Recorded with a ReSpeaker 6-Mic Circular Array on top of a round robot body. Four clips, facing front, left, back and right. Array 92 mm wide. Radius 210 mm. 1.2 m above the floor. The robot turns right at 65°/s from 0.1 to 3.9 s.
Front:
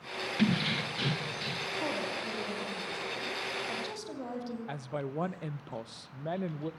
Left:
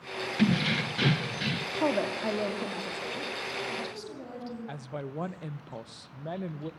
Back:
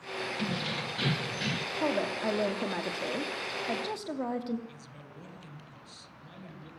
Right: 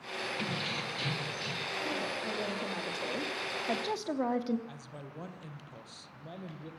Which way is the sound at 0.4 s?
60° left.